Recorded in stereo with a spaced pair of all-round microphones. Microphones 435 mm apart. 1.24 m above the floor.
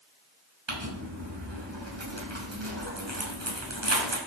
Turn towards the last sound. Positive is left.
turn(degrees=-75)  # may be behind; listen again after turning